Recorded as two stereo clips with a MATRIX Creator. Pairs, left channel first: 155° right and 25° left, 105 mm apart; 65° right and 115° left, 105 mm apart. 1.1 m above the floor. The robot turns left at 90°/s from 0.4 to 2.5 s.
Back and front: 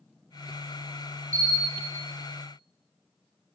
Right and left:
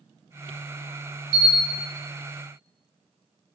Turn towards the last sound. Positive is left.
turn(degrees=-85)